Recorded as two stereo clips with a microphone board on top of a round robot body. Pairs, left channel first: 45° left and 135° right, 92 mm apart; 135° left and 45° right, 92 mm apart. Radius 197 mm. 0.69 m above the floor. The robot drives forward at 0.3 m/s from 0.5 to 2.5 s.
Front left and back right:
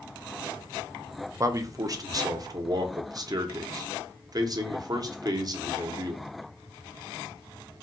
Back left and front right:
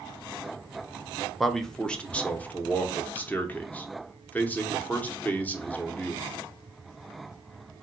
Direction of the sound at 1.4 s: 135° right.